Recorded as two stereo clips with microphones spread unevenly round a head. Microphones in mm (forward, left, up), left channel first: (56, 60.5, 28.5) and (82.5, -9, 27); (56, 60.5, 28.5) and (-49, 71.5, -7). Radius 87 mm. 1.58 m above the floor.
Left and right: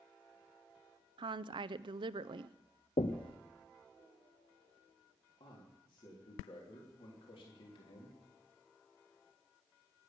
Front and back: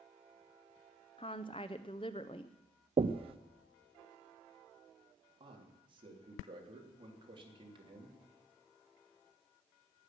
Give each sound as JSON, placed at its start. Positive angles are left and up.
{"t": 1.2, "sound": "a woman speaking", "azimuth_deg": -60, "distance_m": 0.5}
{"t": 3.0, "sound": "knocking", "azimuth_deg": 130, "distance_m": 0.7}
{"t": 5.4, "sound": "a man speaking", "azimuth_deg": 135, "distance_m": 3.5}